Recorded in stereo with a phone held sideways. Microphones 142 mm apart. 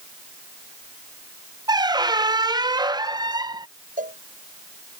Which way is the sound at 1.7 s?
30° right (ahead or behind).